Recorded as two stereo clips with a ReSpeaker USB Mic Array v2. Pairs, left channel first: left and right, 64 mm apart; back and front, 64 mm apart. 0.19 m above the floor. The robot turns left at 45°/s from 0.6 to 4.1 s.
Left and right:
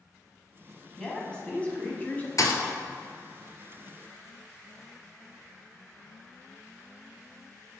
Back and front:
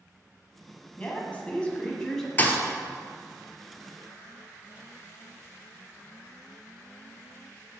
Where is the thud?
120° left, 0.7 m; by 2.6 s 110° left, 0.7 m.